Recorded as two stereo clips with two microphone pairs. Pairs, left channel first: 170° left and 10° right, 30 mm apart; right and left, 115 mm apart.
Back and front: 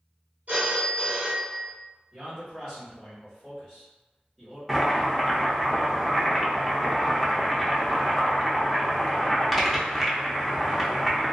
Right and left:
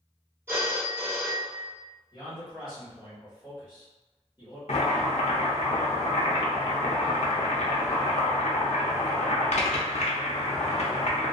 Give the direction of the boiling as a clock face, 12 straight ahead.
3 o'clock.